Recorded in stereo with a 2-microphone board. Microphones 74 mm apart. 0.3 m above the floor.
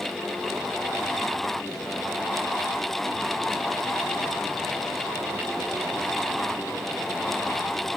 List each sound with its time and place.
Only background noise.